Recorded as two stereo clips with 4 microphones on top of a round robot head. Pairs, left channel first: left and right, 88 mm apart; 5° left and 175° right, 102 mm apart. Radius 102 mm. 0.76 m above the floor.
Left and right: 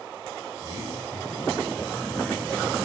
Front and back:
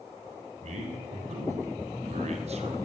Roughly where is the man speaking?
Behind right.